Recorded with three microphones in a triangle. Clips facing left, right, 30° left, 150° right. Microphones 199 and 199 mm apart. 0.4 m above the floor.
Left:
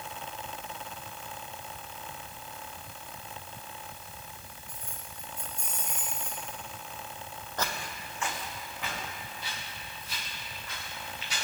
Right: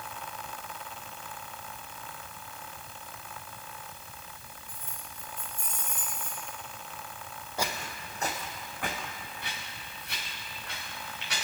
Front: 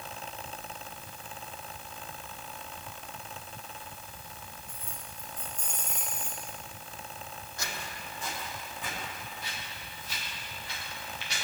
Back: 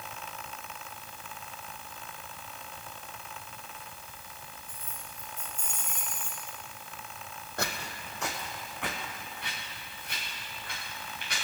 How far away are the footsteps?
About 1.1 m.